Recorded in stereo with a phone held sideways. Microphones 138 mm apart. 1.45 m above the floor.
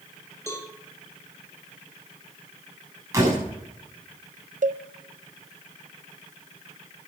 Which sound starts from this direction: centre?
A cowbell, at 0.5 s.